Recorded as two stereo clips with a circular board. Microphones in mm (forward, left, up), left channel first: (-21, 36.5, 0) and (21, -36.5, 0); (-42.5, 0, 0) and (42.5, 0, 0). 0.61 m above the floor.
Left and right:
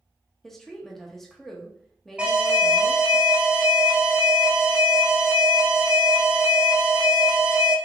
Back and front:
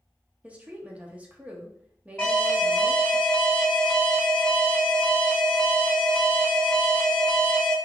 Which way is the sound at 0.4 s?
45° left.